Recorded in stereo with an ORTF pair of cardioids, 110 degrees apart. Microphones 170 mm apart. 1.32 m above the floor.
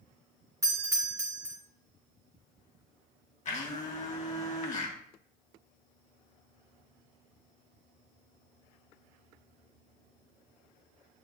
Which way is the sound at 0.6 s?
20° right.